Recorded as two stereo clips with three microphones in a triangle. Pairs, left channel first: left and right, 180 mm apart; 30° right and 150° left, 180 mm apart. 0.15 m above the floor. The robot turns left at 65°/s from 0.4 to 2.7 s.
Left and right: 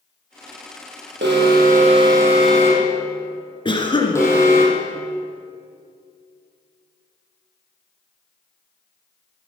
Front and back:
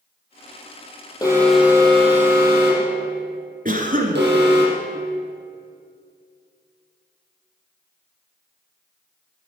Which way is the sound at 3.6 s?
140° left.